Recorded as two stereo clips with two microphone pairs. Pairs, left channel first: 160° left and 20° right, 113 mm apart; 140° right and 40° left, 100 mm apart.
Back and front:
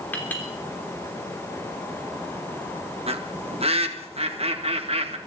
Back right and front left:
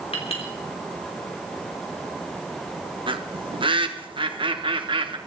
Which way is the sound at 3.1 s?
10° left.